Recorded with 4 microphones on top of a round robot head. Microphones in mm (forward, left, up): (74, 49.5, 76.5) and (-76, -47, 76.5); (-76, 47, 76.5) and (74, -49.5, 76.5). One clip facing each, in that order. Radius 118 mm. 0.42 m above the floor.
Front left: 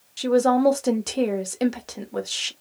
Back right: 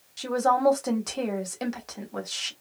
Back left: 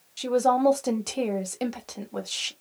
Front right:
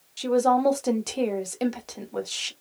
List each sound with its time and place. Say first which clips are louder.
0.2 s a woman speaking: front left 6 dB, front right 1 dB; 55° left, 1.0 m